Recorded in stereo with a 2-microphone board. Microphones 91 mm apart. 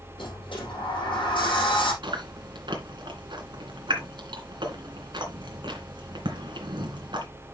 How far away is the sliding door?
About 4.5 m.